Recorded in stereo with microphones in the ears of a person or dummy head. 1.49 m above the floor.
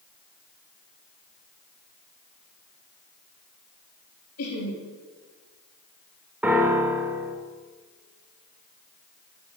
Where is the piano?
10° right (ahead or behind), 1.5 m.